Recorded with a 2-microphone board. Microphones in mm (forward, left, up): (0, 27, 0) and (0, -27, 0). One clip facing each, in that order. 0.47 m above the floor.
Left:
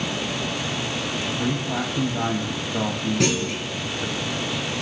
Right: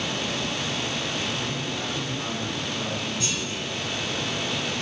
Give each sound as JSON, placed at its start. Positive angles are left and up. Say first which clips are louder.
{"t": 1.4, "sound": "a man speaking", "louder": "left 5 dB", "side_deg": 65, "distance_m": 3.5}
{"t": 3.2, "sound": "a clunk", "louder": "left 7 dB", "side_deg": 70, "distance_m": 4.0}